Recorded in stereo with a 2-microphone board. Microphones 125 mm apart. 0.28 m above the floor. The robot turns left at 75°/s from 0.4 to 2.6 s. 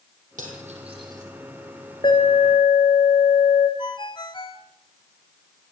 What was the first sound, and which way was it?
Cutlery clinking, 85° right.